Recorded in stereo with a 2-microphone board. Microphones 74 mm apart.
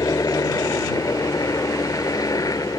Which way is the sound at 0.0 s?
55° left (ahead or behind).